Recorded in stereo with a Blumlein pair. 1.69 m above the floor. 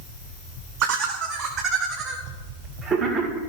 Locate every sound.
0.8 s laughter: 40° right, 1.0 m; by 3.4 s 15° right, 2 m